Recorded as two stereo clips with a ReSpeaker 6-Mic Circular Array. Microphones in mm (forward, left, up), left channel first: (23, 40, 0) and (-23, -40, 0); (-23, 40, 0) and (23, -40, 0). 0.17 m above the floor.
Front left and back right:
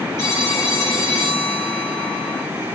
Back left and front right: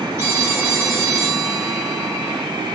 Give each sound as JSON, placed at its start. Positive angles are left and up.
{"t": 0.2, "sound": "a phone ringing", "azimuth_deg": 0, "distance_m": 7.5}